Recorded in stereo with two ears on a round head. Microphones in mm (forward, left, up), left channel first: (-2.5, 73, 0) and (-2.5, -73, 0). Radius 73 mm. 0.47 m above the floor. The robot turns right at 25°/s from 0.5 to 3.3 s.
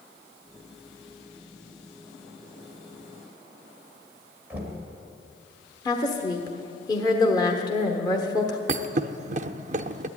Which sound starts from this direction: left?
A woman speaking, at 5.8 s.